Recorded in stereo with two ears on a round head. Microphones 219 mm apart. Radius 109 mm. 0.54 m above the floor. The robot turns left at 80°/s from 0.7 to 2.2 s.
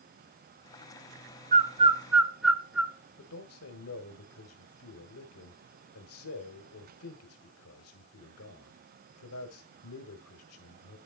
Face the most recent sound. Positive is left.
turn(degrees=65)  # may be behind; listen again after turning